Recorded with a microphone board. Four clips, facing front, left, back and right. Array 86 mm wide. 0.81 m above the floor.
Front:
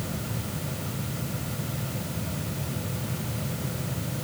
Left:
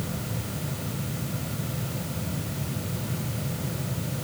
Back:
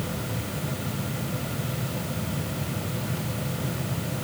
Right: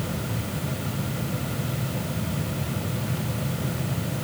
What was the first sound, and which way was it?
Only background noise.